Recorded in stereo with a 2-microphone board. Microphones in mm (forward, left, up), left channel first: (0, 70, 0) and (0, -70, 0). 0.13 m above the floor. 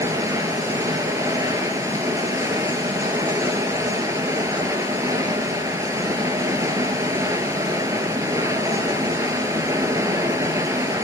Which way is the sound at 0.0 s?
20° right (ahead or behind).